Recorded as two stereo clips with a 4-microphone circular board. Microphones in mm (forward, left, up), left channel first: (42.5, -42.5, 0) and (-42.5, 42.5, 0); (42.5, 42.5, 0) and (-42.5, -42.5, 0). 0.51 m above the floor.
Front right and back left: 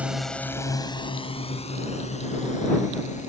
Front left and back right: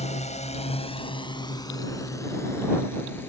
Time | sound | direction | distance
0.0 | a drone | 55° left | ?